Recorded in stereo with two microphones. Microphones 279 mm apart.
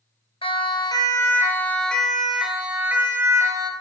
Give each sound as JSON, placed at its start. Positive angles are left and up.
{"t": 0.4, "sound": "a siren", "side_deg": 20, "distance_m": 3.0}